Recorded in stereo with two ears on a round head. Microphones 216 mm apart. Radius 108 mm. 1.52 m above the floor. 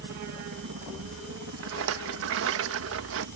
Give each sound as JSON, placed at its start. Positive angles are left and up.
{"t": 0.0, "sound": "a helicopter", "side_deg": -55}
{"t": 1.6, "sound": "a rattle", "side_deg": -55}